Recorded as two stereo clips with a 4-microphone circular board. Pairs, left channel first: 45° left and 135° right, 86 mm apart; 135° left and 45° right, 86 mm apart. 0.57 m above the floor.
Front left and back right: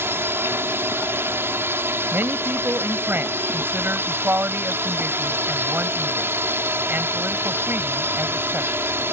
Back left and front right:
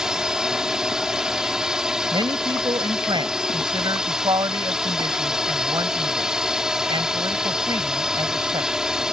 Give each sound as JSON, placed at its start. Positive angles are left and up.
{"t": 0.0, "sound": "a drone", "azimuth_deg": -125}
{"t": 2.1, "sound": "a man speaking", "azimuth_deg": -70}